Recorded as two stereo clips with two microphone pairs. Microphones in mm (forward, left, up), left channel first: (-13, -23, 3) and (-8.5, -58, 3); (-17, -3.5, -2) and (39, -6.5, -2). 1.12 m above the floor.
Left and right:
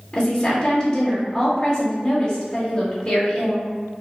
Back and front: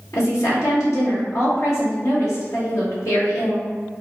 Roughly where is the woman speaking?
Behind.